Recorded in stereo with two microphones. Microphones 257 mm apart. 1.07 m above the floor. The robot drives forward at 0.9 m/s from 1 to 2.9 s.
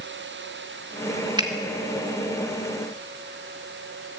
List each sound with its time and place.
1.4 s a finger snap: 15° right (ahead or behind), 2.5 m